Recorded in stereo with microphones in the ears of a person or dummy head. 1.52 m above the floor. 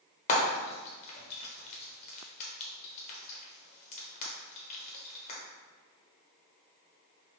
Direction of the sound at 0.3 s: 40° left (ahead or behind).